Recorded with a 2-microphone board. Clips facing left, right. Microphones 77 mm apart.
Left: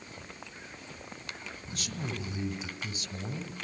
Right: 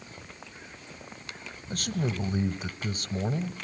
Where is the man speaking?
45° right (ahead or behind), 1.2 m.